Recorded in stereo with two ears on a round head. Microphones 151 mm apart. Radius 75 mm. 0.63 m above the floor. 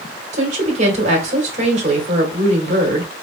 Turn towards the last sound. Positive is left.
turn(degrees=-45)  # may be behind; listen again after turning